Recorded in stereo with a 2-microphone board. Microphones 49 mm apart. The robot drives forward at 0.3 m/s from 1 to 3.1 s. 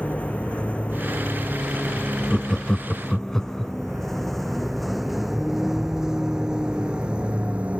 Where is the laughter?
10° left (ahead or behind).